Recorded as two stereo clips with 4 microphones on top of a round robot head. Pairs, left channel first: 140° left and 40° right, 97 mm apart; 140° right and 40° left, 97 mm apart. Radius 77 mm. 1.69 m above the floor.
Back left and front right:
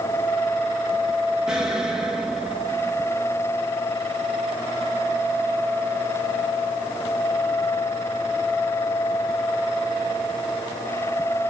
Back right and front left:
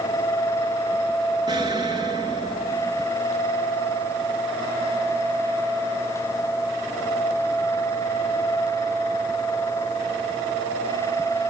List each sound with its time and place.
1.5 s an explosion: 35° left, 1.1 m